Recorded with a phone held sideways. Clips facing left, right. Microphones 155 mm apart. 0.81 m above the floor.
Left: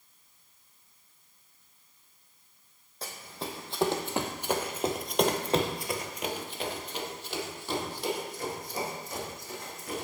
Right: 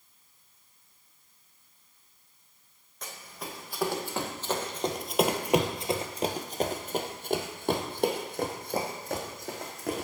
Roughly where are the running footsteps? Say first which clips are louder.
Left 3 dB; left.